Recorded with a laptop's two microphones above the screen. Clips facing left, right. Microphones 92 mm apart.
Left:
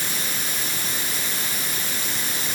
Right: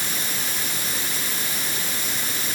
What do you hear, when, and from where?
Only background noise.